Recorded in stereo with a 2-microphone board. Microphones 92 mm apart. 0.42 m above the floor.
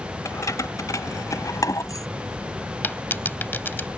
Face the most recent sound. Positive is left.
turn(degrees=20)  # may be behind; listen again after turning